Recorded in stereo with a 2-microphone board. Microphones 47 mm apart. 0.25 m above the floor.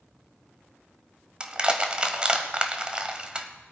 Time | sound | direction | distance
1.4 | crushing | 20° right (ahead or behind) | 1.0 m